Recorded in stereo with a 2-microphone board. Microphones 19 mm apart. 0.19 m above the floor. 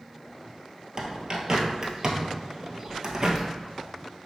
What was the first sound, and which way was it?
A bird, 35° right (ahead or behind).